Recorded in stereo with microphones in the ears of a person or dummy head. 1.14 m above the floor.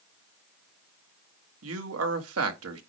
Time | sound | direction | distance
1.6 | a man speaking | 80° right | 1.5 m